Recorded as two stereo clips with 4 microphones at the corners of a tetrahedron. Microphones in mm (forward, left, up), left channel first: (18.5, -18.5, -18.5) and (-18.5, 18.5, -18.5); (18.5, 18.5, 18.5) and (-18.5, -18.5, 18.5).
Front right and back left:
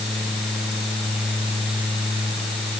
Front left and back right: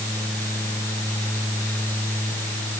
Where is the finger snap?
No finger snap in this recording.